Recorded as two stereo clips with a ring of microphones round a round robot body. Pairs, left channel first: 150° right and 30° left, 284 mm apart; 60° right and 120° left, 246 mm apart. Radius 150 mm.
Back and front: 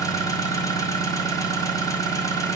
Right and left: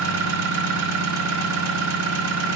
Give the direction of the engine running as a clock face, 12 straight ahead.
8 o'clock.